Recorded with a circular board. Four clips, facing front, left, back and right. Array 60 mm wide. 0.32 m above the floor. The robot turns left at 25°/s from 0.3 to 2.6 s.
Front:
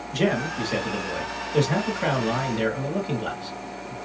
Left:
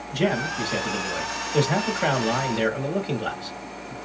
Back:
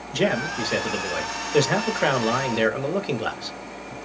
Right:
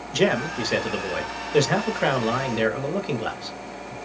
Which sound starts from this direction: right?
A man speaking, at 0.1 s.